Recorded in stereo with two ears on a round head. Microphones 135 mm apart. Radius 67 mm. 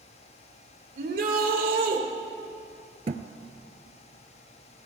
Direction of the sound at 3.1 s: 45° right (ahead or behind).